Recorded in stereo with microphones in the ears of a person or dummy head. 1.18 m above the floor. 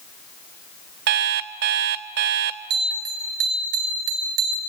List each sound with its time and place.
1.1 s an alarm clock: 45° right (ahead or behind), 0.6 m
2.7 s a bell: 55° right (ahead or behind), 2.5 m